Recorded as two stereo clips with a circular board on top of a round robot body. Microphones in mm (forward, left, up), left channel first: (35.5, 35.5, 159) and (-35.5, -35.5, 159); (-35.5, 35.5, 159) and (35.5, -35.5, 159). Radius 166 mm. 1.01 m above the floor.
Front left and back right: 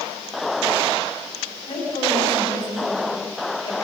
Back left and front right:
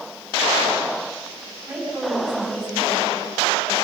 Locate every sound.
1.7 s a woman speaking: 35° left, 8 m; by 3.7 s 45° left, 7 m